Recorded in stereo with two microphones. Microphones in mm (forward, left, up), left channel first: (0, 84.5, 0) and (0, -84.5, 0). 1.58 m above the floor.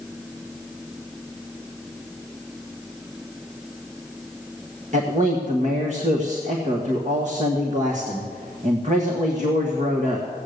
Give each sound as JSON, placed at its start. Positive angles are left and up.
{"t": 4.9, "sound": "a man speaking", "side_deg": -45, "distance_m": 1.5}